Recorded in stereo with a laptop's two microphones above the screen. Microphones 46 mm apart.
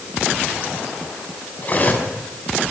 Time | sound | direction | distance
1.6 | cutlery clinking | 35° left (ahead or behind) | 5.5 m